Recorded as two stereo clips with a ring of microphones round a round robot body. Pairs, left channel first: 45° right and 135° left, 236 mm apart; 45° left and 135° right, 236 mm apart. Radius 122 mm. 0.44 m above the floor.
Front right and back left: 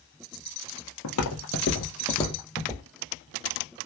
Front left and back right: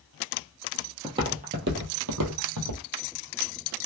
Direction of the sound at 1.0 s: 60° right.